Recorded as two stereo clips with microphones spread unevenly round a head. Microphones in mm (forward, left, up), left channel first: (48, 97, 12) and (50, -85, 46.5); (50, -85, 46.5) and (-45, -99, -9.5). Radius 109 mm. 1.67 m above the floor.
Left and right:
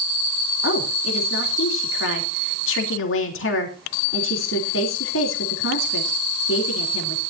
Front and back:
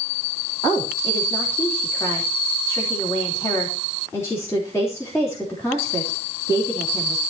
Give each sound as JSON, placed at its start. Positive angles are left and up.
{"t": 0.6, "sound": "a woman speaking", "azimuth_deg": 85, "distance_m": 3.5}